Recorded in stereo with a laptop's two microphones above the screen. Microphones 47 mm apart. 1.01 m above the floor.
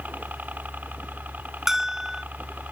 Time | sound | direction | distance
0.0 | a helicopter | 40° right (ahead or behind) | ?
1.7 | a bell | 10° right (ahead or behind) | ?